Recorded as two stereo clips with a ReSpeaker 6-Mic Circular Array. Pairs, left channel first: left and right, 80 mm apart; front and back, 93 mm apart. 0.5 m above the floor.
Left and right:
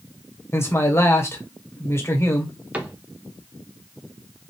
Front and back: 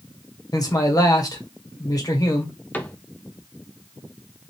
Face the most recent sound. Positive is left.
turn(degrees=-45)